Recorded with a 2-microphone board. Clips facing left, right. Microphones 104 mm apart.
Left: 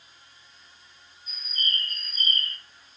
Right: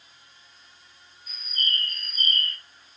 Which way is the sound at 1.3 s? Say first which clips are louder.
Right 1 dB; 70° right (ahead or behind).